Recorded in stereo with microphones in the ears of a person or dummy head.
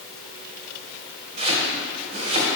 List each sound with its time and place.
1.4 s chopping: 30° right (ahead or behind), 2.0 m